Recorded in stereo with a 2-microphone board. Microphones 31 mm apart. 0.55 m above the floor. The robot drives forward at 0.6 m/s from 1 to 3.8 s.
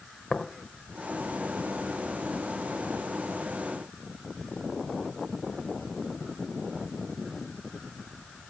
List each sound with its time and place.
0.3 s tapping: 30° left (ahead or behind), 1.2 m